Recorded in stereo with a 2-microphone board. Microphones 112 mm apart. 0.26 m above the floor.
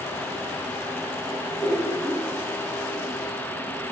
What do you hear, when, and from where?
1.6 s laughter: 5° right (ahead or behind), 2.5 m